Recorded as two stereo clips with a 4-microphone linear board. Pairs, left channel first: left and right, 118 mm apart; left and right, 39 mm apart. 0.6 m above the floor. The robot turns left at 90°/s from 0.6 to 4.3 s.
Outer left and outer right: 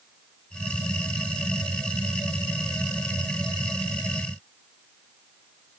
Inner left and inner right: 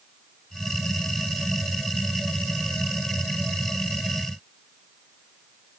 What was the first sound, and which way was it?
Only background noise.